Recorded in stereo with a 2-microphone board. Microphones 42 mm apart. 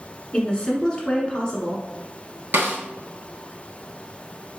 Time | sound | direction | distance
0.3 | a woman speaking | 20° left (ahead or behind) | 1.1 m
2.5 | a snare drum | 60° right (ahead or behind) | 1.0 m